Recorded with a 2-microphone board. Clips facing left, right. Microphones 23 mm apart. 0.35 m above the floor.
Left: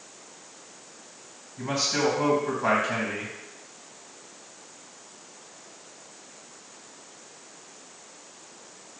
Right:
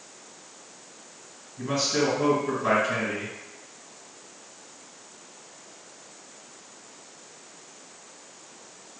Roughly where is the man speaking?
Left.